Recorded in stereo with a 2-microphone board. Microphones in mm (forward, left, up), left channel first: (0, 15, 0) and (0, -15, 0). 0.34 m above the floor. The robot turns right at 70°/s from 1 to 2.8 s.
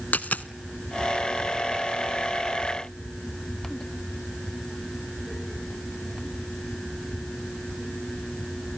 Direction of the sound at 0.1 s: 70° left (ahead or behind).